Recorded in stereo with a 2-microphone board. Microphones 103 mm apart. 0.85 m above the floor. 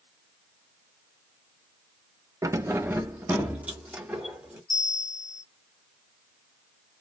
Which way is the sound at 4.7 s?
40° right (ahead or behind).